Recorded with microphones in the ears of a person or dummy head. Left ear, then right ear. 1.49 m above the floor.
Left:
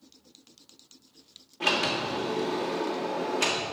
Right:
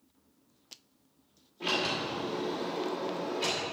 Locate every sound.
1.6 s a sliding door: 40° left (ahead or behind), 1.5 m